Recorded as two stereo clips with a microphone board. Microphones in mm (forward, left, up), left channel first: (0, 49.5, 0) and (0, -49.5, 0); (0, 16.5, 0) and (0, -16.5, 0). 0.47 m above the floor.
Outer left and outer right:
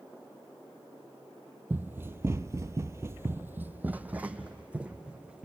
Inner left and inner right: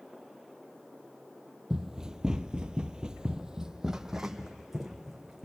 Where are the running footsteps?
20° right (ahead or behind), 0.7 m; by 5.5 s 10° right (ahead or behind), 1.8 m.